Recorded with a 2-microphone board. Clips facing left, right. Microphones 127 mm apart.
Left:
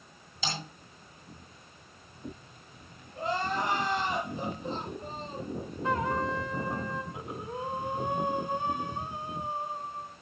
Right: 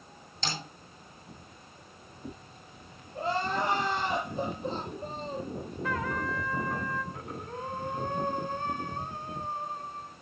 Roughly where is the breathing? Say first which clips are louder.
Left 2 dB; centre.